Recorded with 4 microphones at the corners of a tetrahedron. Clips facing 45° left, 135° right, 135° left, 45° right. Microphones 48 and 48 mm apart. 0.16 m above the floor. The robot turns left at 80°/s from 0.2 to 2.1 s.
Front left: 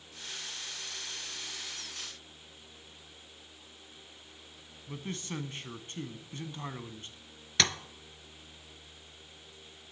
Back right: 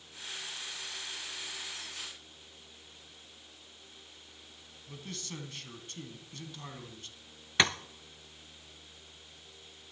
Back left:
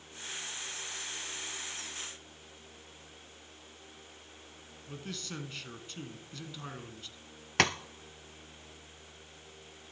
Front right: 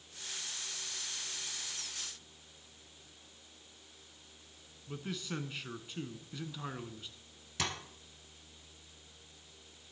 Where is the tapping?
155° left, 0.8 m.